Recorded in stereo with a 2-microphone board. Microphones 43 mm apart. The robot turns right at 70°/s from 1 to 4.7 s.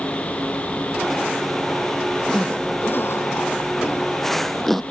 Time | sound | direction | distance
2.3 | a zipper | 5° left (ahead or behind) | ?